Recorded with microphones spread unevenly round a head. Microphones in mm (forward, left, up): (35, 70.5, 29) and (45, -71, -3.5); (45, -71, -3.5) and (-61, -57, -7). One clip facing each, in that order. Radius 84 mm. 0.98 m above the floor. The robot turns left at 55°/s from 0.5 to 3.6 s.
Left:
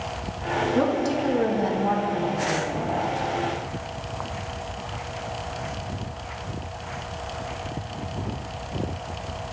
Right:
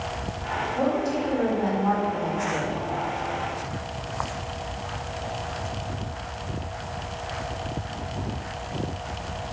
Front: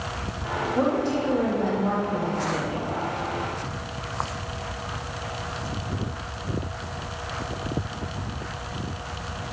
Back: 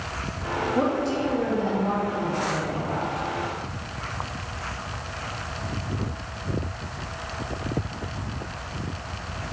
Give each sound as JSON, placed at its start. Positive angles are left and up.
{"t": 0.8, "sound": "a woman speaking", "azimuth_deg": 90, "distance_m": 1.2}